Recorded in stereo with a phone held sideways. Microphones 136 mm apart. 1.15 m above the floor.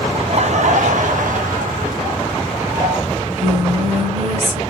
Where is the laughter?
45° right (ahead or behind), 0.6 m; by 3.0 s 80° right, 1.9 m.